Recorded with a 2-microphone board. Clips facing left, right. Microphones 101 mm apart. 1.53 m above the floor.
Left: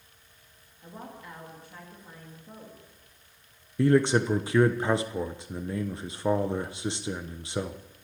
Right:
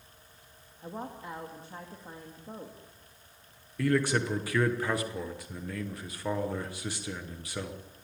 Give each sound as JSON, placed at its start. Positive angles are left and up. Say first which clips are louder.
{"t": 0.8, "sound": "a woman speaking", "louder": "right 4 dB", "side_deg": -30, "distance_m": 2.5}
{"t": 3.8, "sound": "a man speaking", "louder": "left 5 dB", "side_deg": 25, "distance_m": 1.0}